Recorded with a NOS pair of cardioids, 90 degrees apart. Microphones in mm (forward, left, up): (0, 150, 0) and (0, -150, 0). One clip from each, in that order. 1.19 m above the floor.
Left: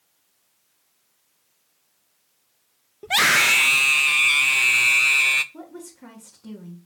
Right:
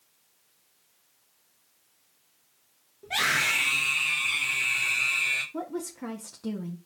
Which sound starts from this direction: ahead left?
A scream, at 3.0 s.